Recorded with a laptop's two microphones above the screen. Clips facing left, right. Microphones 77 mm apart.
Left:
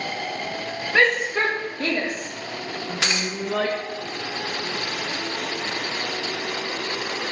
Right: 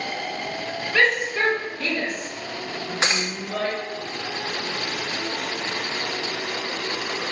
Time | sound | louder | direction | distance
0.9 | a shout | left 1 dB | 25° left (ahead or behind) | 2.5 m
3.0 | breaking glass | right 2 dB | 25° right (ahead or behind) | 1.0 m